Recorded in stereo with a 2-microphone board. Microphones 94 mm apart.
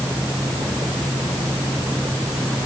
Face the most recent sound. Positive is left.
No sound to turn to.